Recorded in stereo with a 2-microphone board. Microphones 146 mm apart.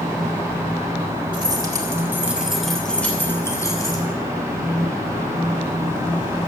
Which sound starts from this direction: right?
Keys jangling, at 1.3 s.